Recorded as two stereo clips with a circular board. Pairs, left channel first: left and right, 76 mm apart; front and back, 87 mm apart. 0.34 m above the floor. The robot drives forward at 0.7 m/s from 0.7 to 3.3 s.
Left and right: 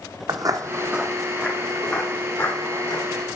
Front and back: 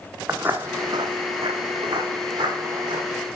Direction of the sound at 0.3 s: 110° right.